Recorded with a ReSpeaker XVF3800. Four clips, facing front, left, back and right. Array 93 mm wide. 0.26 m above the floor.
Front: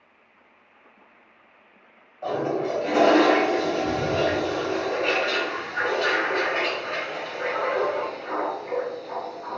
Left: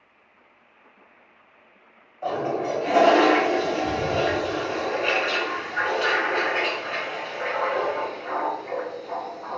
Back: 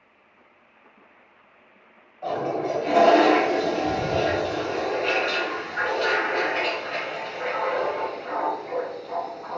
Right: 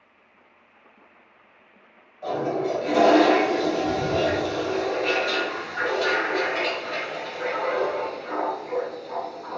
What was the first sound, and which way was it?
A toilet flushing, 75° left.